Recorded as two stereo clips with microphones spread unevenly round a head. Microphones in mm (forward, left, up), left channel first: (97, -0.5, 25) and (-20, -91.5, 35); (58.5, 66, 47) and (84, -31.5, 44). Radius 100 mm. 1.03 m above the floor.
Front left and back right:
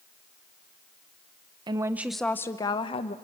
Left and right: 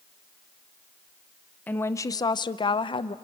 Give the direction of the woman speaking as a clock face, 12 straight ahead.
6 o'clock.